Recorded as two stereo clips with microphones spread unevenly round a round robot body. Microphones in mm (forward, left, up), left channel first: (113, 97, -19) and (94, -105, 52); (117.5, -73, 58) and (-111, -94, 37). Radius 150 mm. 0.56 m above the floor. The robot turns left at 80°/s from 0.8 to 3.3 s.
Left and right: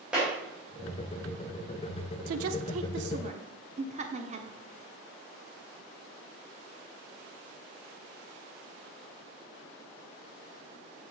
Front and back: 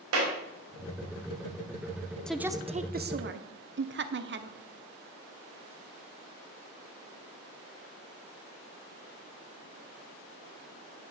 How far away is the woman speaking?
About 1.1 m.